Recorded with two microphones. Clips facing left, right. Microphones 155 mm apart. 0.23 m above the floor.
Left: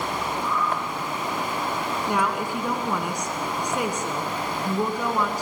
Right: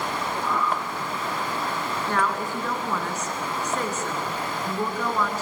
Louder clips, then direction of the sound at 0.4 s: Right 2 dB; 60° right (ahead or behind).